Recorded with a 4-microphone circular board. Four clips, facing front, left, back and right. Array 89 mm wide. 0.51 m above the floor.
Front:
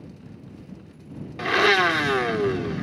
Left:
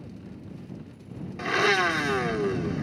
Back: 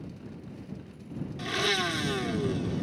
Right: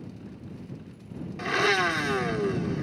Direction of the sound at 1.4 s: Straight ahead.